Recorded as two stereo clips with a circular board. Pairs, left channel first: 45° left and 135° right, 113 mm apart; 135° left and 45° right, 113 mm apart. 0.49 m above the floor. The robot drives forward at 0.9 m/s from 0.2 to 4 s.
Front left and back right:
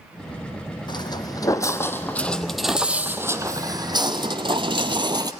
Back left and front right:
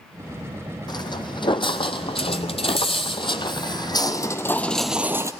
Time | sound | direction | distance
0.9 | footsteps | 90° left | 1.1 m